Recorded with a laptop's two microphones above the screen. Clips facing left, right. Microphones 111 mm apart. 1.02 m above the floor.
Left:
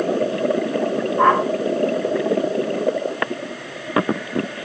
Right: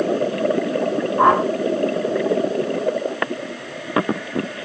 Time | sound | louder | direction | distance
1.2 | a whoosh | right 1 dB | 20° right (ahead or behind) | 5.5 m